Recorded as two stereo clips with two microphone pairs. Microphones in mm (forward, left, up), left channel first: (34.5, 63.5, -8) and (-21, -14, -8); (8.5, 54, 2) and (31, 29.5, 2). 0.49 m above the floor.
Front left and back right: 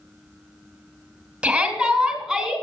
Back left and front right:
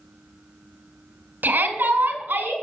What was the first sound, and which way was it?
A shout, 45° right.